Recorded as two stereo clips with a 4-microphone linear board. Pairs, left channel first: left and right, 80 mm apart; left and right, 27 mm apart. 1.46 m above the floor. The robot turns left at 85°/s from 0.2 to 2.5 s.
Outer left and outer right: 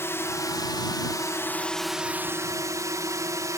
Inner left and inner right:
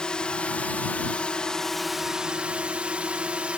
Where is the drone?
140° left; by 3.6 s 55° right.